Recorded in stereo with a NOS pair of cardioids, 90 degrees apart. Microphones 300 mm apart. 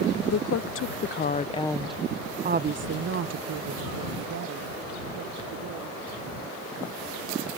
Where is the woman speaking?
55° left; by 6.0 s 75° right.